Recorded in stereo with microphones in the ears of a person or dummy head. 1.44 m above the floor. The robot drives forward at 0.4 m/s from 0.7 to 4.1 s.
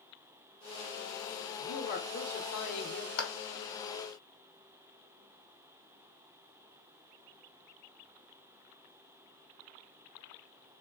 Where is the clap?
80° left, 1.1 m.